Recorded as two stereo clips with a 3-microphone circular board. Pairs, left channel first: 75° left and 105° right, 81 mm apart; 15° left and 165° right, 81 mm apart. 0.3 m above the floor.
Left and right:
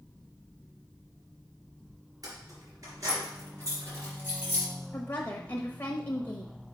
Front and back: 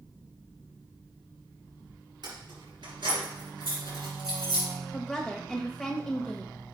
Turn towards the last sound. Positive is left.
turn(degrees=90)